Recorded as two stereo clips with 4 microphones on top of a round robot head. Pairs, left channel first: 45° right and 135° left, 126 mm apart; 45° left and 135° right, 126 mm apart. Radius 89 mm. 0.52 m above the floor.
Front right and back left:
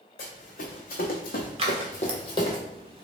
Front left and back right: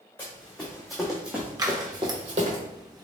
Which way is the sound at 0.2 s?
35° right.